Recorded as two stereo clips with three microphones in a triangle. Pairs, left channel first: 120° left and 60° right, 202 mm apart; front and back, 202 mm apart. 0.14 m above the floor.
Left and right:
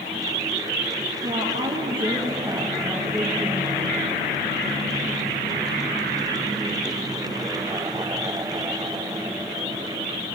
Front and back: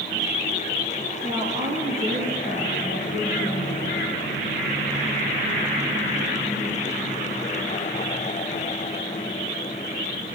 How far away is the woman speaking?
About 4 m.